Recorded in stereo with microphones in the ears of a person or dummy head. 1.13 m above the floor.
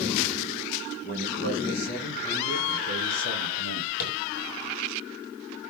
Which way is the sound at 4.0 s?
50° left (ahead or behind).